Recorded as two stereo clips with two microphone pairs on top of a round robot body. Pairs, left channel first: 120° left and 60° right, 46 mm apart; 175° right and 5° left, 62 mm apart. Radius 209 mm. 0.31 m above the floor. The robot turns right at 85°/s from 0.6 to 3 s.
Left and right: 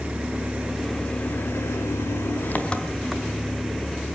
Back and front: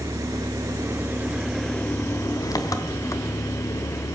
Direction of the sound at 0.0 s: 10° left.